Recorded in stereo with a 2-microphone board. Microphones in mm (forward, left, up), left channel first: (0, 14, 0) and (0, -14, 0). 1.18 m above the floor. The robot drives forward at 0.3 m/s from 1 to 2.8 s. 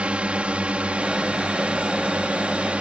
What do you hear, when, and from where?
0.0 s a drone: 45° right (ahead or behind); by 2.8 s 50° right (ahead or behind)